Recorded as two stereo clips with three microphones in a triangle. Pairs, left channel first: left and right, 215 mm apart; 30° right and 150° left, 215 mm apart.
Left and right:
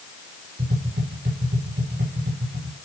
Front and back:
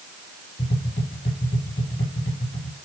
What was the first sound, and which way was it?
Tapping, 65° right.